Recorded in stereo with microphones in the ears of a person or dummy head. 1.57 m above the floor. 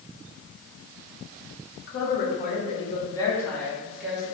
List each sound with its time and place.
1.9 s a woman speaking: 60° left (ahead or behind), 1.1 m; by 4.3 s 5° right (ahead or behind), 1.5 m